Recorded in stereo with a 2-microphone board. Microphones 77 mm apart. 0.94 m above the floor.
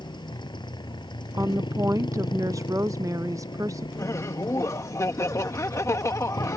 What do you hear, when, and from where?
0.0 s a motorcycle: 80° left
1.3 s a woman speaking: 45° right (ahead or behind)
4.0 s laughter: 40° left (ahead or behind)